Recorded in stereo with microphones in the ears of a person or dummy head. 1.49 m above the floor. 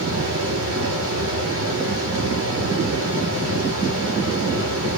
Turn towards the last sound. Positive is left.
turn(degrees=-85)